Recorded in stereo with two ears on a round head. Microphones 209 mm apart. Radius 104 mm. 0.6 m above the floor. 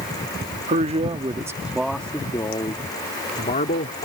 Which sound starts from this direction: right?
A man speaking, at 0.7 s.